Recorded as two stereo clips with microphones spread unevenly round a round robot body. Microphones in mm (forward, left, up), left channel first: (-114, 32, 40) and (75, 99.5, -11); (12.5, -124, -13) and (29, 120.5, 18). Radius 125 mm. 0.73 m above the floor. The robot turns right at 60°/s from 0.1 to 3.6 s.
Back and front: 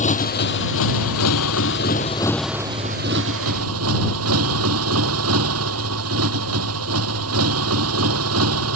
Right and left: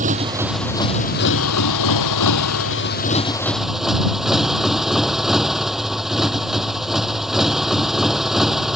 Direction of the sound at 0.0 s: 150° left.